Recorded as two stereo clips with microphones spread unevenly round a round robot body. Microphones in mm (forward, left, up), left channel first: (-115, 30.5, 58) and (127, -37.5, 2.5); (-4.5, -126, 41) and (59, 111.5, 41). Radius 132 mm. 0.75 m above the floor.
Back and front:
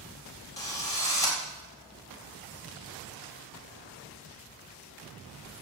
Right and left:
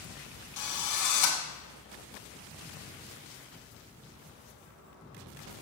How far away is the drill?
About 4 m.